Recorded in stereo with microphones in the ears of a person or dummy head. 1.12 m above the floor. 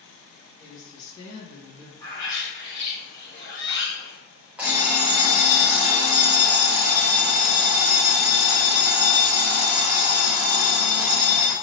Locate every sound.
0.6 s a woman speaking: 20° left (ahead or behind), 1.1 m; by 1.9 s centre (ahead or behind), 0.7 m
2.0 s a bird: 20° left (ahead or behind), 1.5 m
4.6 s an alarm clock: 5° right (ahead or behind), 0.9 m